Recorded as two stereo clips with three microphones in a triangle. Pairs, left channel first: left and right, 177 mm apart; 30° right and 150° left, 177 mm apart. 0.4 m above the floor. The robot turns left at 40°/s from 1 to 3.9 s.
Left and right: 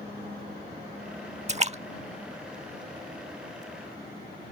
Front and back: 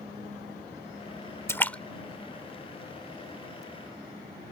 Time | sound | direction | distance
1.5 | a splash | 100° right | ?